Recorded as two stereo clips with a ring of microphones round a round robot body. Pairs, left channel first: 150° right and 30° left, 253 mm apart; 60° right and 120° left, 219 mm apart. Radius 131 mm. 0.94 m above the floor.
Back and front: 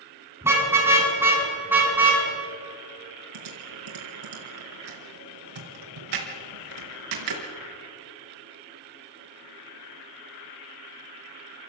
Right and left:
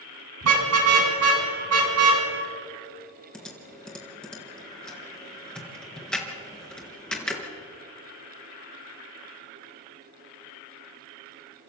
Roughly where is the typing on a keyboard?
Ahead left.